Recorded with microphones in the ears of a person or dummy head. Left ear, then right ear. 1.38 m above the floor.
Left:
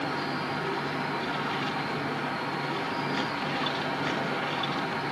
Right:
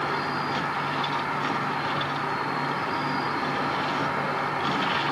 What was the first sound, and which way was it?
An insect, 50° right (ahead or behind).